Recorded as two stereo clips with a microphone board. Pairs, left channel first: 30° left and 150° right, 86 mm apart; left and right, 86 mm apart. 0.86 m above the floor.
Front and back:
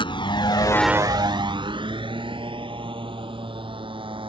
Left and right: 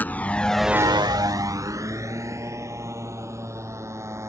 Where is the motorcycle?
20° left; by 4.3 s 145° right.